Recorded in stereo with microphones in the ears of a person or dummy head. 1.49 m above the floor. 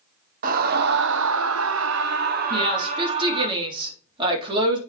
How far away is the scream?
About 1.1 m.